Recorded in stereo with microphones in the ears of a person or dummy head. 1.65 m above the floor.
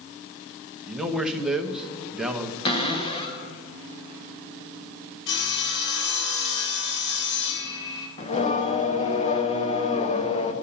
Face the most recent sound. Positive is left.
turn(degrees=35)  # may be behind; listen again after turning